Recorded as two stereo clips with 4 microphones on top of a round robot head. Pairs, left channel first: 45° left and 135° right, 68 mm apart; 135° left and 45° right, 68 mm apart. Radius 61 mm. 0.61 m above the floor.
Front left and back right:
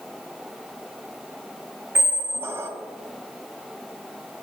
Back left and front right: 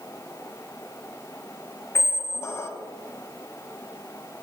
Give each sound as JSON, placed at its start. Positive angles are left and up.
{"t": 1.9, "sound": "a squeak", "azimuth_deg": 175, "distance_m": 0.6}